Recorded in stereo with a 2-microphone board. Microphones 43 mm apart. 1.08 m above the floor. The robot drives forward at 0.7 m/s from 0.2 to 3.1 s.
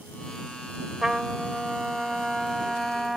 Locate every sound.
1.0 s a trumpet: 10° right (ahead or behind); by 3.2 s 5° right (ahead or behind)